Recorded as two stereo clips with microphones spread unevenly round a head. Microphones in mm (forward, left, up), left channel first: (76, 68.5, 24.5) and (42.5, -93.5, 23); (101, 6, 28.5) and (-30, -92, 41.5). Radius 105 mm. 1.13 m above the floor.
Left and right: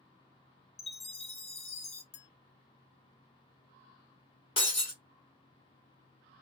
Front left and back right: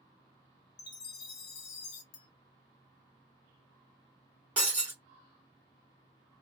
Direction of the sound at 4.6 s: 140° left.